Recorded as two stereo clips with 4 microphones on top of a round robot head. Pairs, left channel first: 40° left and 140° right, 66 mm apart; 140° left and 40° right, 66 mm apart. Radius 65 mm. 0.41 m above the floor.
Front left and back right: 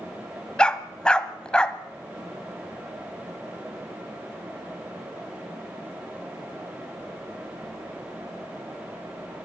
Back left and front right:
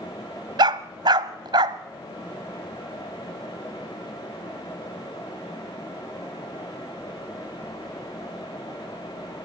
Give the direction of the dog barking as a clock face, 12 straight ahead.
1 o'clock.